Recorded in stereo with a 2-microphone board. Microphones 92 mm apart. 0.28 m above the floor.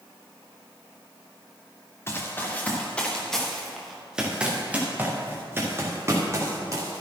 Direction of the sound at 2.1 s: 25° left (ahead or behind).